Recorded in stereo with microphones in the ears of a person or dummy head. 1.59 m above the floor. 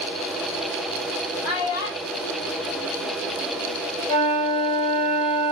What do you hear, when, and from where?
1.4 s a child speaking: 60° left (ahead or behind), 1.2 m; by 3.8 s 50° right (ahead or behind), 0.8 m
4.1 s a flute: 55° left (ahead or behind), 1.8 m